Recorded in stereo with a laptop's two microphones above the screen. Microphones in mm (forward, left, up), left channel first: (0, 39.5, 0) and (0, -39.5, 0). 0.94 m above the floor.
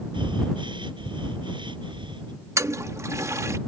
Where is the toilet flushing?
40° right (ahead or behind).